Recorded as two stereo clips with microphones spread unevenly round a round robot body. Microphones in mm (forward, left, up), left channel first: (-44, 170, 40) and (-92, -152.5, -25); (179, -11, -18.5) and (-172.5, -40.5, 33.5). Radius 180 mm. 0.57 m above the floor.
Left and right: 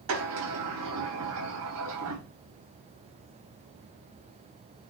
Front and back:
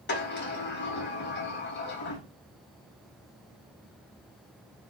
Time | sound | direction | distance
0.1 | a sliding door | 50° right | 3.5 m